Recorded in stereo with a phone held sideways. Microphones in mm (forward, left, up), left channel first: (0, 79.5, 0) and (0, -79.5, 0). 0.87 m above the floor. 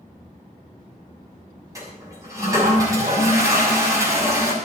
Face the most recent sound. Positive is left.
turn(degrees=-20)  # may be behind; listen again after turning